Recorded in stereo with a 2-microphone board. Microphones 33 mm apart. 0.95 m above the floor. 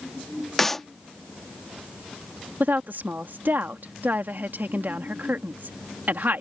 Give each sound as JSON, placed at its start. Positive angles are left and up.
{"t": 0.6, "sound": "a clap", "side_deg": 10}
{"t": 2.6, "sound": "a woman speaking", "side_deg": -70}